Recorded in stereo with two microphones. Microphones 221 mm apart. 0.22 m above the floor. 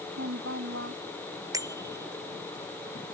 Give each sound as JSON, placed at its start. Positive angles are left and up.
{"t": 0.1, "sound": "a woman speaking", "side_deg": -80}
{"t": 1.5, "sound": "a bicycle bell", "side_deg": -15}